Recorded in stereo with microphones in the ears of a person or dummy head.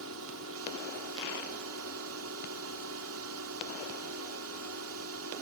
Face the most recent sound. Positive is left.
turn(degrees=-70)  # may be behind; listen again after turning